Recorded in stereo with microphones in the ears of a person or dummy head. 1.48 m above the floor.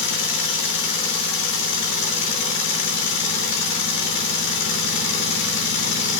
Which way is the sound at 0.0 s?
65° left (ahead or behind).